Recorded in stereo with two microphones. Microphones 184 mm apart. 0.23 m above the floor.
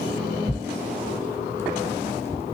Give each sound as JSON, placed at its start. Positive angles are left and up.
{"t": 0.5, "sound": "tearing paper", "side_deg": 15, "distance_m": 1.7}